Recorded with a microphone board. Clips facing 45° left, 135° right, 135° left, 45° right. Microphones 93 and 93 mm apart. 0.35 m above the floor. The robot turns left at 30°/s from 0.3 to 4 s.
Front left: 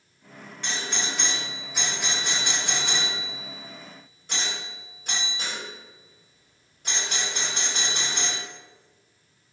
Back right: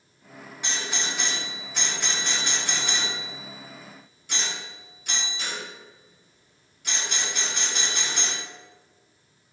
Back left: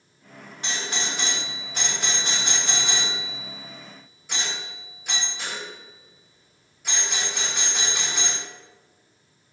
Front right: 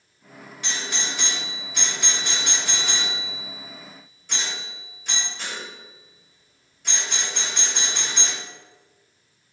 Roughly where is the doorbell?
Behind left.